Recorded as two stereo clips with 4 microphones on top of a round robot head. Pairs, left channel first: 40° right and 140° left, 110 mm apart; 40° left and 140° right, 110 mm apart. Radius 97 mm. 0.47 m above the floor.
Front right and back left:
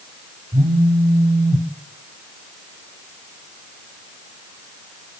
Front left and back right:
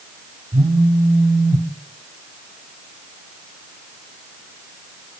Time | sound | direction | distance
0.5 | a phone buzzing | 165° left | 2.0 m